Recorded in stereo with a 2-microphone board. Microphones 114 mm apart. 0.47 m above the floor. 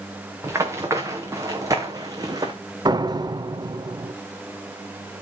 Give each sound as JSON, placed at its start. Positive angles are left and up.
{"t": 0.4, "sound": "running footsteps", "side_deg": -25, "distance_m": 3.5}
{"t": 2.9, "sound": "a door slam", "side_deg": -40, "distance_m": 0.8}